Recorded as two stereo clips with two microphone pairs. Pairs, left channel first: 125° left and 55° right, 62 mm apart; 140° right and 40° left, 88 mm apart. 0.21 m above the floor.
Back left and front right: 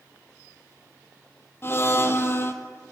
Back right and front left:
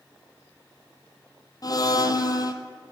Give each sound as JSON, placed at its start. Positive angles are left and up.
{"t": 1.6, "sound": "a blender", "azimuth_deg": 175, "distance_m": 1.0}